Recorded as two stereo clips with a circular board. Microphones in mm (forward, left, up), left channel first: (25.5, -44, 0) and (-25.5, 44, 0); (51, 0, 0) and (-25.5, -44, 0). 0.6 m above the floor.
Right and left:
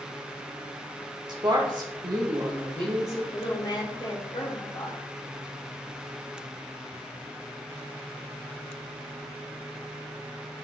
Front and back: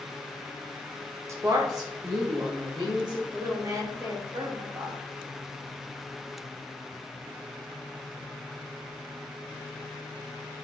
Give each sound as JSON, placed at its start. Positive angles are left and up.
{"t": 1.3, "sound": "a woman speaking", "azimuth_deg": 160, "distance_m": 1.2}
{"t": 3.3, "sound": "a woman speaking", "azimuth_deg": -100, "distance_m": 2.5}